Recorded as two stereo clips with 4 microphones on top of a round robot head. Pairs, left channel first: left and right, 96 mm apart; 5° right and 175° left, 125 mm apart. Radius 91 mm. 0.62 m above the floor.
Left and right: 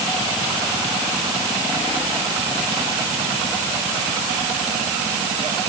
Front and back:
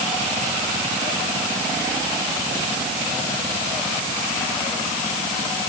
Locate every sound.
Only background noise.